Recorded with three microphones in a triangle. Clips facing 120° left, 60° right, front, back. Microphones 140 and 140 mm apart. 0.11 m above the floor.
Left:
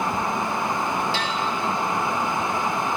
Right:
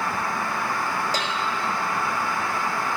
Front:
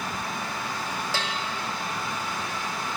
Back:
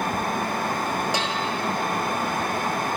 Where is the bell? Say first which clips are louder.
Left 1 dB, back 5 dB; 110° right, 2.5 m.